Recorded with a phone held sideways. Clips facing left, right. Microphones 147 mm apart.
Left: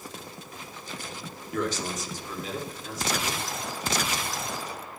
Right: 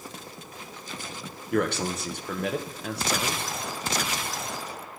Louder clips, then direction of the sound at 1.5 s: Right 4 dB; 65° right (ahead or behind).